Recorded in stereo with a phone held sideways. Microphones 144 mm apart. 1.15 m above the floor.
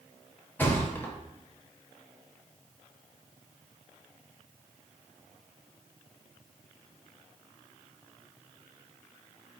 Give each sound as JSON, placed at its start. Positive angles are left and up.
{"t": 0.6, "sound": "a thud", "side_deg": 15, "distance_m": 0.7}